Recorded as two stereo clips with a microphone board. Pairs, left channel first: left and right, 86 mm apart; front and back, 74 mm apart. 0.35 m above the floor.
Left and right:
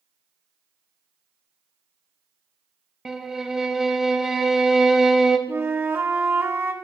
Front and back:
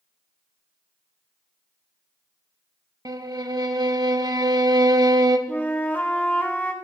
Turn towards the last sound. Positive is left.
turn(degrees=-50)